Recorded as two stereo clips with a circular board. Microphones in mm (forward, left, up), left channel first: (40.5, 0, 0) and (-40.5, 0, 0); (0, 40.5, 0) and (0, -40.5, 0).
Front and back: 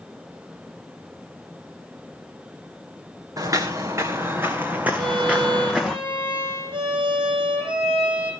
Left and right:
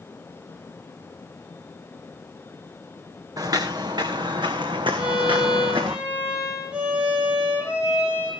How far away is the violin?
About 8 m.